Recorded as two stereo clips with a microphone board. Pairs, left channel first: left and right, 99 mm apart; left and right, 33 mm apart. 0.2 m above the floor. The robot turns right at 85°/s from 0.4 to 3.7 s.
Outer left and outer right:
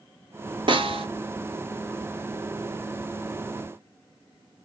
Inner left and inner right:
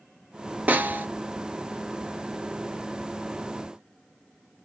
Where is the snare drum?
120° right, 0.7 m; by 1.1 s 90° right, 0.7 m.